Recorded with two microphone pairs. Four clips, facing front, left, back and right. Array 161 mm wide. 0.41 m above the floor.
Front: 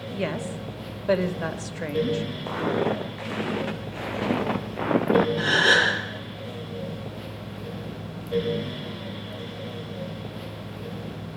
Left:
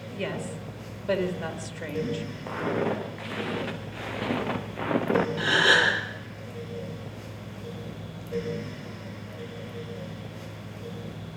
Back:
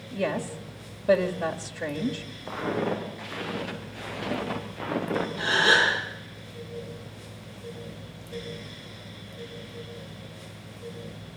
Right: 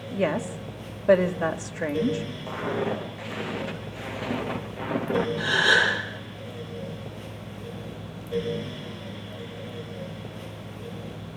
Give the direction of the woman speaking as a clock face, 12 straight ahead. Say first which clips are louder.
Right 7 dB, back 1 dB; 3 o'clock.